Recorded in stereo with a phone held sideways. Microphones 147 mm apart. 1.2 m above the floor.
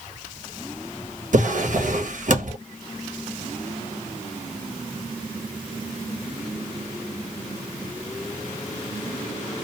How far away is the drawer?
About 0.7 m.